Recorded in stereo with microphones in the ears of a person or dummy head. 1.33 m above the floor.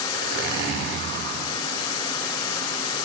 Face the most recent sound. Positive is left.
turn(degrees=-55)  # may be behind; listen again after turning